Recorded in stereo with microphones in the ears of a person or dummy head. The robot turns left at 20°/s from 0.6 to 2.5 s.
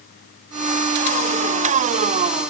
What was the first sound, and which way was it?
Only background noise.